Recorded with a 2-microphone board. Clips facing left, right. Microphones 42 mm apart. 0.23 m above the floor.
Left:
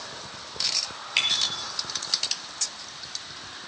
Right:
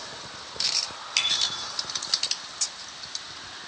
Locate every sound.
1.2 s a bicycle bell: 20° left (ahead or behind), 3.5 m